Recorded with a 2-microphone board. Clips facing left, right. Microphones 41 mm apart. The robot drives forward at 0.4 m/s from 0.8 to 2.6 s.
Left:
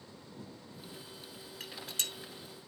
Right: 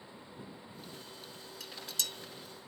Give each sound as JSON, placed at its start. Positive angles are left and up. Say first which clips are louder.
{"t": 1.6, "sound": "dishes clattering", "louder": "left 1 dB", "side_deg": 35, "distance_m": 1.0}